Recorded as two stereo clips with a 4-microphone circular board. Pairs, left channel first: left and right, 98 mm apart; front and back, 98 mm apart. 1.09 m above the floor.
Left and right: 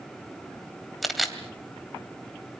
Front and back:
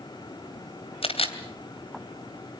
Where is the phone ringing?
No phone ringing in this recording.